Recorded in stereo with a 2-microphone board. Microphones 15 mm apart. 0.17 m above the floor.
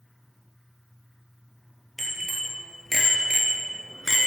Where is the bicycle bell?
5° left (ahead or behind), 3 m; by 4.3 s 25° right (ahead or behind), 1.6 m.